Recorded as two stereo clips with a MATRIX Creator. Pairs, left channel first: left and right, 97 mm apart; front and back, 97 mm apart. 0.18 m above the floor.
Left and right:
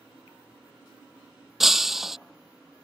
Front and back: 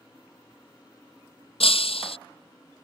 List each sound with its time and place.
1.6 s breaking glass: 5° right